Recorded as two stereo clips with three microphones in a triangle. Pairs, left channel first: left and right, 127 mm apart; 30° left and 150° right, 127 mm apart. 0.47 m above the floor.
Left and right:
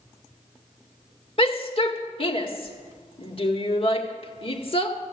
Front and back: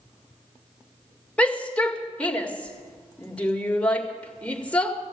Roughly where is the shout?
Left.